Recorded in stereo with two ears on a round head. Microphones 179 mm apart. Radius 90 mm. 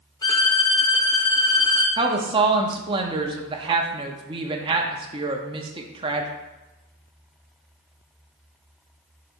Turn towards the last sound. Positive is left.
turn(degrees=-25)  # may be behind; listen again after turning